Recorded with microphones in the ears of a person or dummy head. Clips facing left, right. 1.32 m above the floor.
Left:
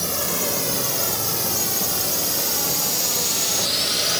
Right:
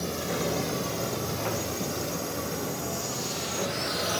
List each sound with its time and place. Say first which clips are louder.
0.0 s a drone: left 2 dB; 65° left (ahead or behind); by 4.2 s 30° left (ahead or behind)